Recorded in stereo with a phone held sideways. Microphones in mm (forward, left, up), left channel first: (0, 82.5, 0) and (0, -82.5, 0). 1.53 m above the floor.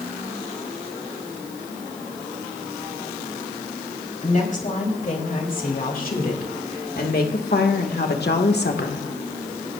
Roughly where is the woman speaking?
Left.